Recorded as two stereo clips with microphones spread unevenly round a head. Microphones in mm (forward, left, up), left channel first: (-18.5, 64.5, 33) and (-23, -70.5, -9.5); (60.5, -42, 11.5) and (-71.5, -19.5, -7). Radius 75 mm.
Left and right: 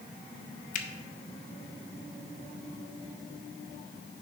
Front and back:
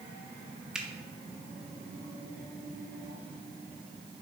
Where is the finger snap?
80° left, 0.7 m.